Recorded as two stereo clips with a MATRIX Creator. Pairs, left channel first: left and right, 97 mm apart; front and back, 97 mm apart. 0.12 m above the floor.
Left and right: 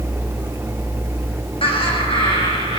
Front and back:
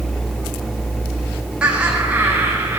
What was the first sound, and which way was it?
Laughter, 100° left.